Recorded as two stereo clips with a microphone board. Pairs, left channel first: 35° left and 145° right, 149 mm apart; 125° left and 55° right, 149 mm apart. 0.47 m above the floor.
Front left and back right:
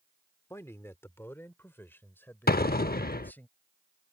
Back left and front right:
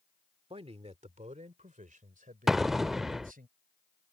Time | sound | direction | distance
0.5 | a man speaking | 30° right | ?
2.5 | an explosion | 30° left | ?